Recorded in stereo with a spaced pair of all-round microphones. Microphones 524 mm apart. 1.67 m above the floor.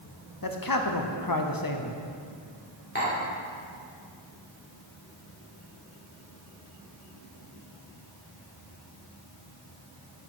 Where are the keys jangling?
No keys jangling in this recording.